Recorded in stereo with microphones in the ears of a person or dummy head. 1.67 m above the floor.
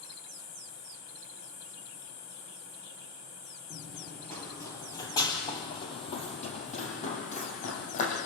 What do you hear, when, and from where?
3.7 s running footsteps: 5° right (ahead or behind), 2.5 m; by 8.2 s 35° left (ahead or behind), 5.5 m